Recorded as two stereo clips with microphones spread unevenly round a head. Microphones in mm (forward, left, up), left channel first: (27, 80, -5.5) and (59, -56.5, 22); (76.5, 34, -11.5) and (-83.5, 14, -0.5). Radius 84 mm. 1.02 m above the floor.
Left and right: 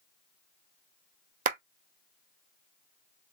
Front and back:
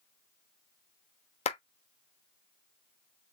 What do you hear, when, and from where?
1.4 s a clap: 50° right, 1.1 m